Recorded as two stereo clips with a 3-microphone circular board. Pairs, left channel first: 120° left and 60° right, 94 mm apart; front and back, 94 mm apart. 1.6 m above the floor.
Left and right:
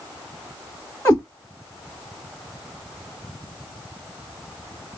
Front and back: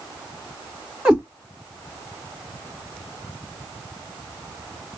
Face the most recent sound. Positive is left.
turn(degrees=130)